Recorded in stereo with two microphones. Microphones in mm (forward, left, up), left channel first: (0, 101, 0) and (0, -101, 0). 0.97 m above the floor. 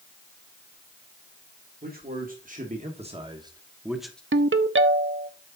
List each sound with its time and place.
1.8 s a man speaking: 50° right (ahead or behind), 2.0 m; by 4.2 s 5° left (ahead or behind), 1.0 m
4.3 s a ringtone: 75° right (ahead or behind), 0.6 m